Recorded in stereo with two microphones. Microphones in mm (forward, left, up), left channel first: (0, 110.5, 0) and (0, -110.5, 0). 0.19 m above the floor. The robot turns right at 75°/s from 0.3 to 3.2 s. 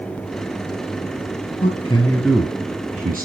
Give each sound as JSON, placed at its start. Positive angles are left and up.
{"t": 1.6, "sound": "a man speaking", "side_deg": 35, "distance_m": 2.5}